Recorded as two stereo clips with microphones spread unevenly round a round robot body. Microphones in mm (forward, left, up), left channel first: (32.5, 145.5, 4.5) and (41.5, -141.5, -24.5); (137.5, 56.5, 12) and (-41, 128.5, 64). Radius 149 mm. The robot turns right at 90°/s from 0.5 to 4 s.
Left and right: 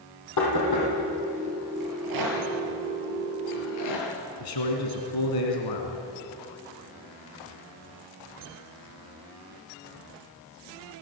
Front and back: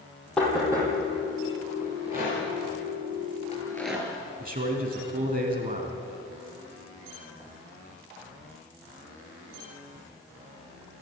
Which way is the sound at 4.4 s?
110° left.